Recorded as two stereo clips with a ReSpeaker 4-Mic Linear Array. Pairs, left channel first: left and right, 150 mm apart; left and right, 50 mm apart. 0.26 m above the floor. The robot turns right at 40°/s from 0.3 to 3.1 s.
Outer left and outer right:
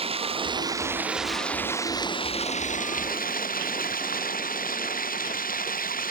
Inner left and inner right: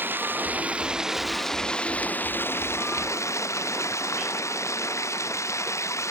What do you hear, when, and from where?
0.0 s running water: 40° right; by 6.1 s 70° left